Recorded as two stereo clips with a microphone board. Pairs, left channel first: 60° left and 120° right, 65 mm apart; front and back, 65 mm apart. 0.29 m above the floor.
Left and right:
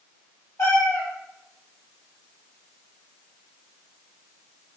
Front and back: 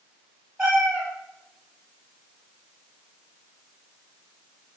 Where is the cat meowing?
100° left, 1.8 m.